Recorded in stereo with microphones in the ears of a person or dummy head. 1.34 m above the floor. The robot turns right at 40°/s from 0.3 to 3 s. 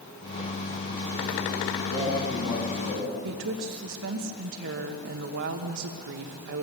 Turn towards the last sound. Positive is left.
turn(degrees=-55)  # may be behind; listen again after turning